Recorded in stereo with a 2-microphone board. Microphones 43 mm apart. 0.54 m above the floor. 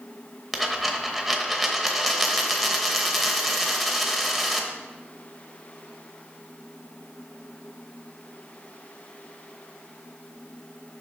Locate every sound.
0.5 s a dropped coin: centre (ahead or behind), 0.9 m